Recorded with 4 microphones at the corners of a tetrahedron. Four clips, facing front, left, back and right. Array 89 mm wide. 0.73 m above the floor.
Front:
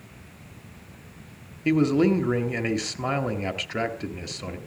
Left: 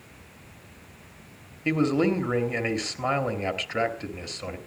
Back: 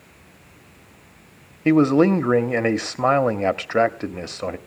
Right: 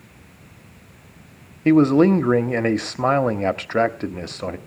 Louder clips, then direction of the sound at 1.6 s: Right 9 dB, back 5 dB; 140° right.